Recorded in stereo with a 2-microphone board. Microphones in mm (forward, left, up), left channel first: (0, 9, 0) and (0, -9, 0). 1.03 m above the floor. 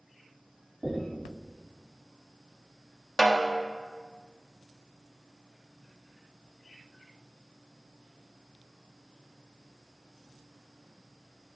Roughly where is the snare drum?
Left.